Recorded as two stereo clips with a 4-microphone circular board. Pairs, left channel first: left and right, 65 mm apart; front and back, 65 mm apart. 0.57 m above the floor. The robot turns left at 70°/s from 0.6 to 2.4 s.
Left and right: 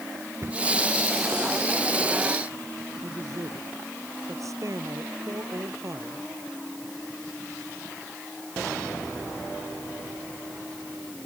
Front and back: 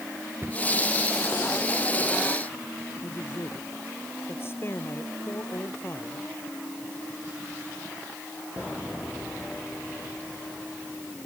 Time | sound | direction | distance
0.4 | a cupboard door | 130° right | ?
3.0 | a man speaking | 55° right | ?